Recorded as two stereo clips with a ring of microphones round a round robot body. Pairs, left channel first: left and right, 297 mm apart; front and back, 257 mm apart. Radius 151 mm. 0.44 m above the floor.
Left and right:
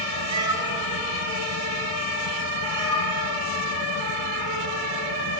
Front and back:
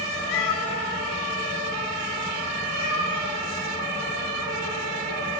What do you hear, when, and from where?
0.3 s a cat meowing: 15° right, 0.8 m; by 3.4 s 15° left, 3 m